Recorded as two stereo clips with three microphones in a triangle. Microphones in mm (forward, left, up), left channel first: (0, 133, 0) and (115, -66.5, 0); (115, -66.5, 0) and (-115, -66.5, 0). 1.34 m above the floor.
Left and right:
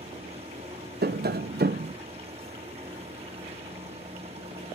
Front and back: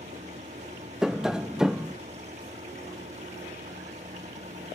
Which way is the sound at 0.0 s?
120° right.